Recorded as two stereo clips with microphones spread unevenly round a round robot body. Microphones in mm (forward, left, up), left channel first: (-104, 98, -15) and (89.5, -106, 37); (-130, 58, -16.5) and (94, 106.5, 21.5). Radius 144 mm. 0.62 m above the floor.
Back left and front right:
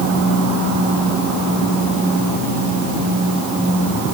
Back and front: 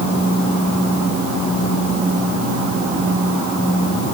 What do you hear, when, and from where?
Only background noise.